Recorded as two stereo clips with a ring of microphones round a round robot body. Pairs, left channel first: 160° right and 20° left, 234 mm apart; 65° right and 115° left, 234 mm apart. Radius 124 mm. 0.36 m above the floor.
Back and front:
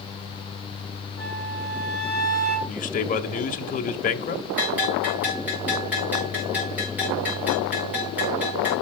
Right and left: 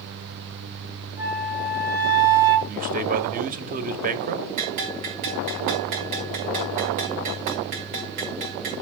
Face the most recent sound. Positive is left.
turn(degrees=105)